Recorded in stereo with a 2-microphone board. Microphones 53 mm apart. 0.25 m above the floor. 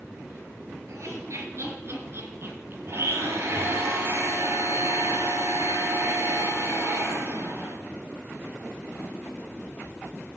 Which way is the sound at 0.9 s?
65° right (ahead or behind).